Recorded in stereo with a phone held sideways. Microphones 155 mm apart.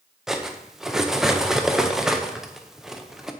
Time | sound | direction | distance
0.3 | cutlery clinking | 5° right (ahead or behind) | 0.5 m